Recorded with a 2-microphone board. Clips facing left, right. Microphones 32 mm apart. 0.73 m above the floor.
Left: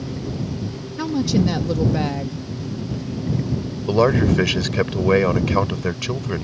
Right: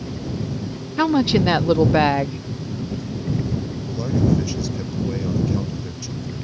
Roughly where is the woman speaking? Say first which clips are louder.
Right 3 dB; right.